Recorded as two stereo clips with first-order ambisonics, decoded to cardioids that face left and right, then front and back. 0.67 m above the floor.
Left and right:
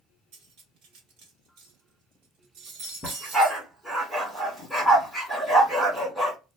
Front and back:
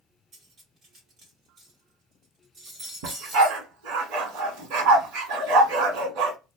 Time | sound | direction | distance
0.3 | cutlery clinking | 120° right | 1.4 m
3.0 | a dog barking | straight behind | 1.4 m